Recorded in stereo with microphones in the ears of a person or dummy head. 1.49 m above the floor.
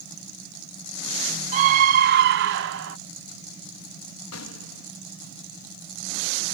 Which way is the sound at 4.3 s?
85° left.